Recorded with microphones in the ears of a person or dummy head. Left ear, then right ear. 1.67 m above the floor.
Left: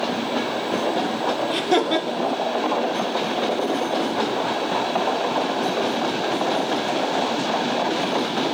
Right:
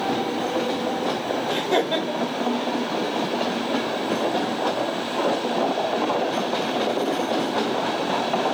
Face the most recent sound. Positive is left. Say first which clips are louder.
# left 1 dB
turn(degrees=50)  # may be behind; listen again after turning